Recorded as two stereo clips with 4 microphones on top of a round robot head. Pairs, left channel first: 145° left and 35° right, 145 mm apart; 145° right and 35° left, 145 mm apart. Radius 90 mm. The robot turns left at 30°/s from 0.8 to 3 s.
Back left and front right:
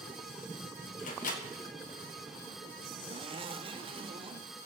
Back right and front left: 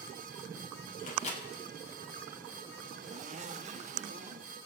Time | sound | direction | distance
1.0 | a microwave | straight behind | 2 m
2.9 | a zipper | 10° left | 1.2 m